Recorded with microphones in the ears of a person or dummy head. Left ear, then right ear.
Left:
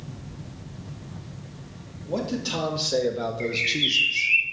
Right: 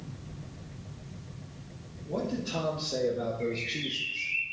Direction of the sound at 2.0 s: 65° left (ahead or behind).